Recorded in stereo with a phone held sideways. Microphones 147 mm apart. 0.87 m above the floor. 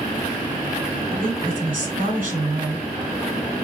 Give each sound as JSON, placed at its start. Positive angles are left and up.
{"t": 1.1, "sound": "a woman speaking", "side_deg": -70, "distance_m": 2.5}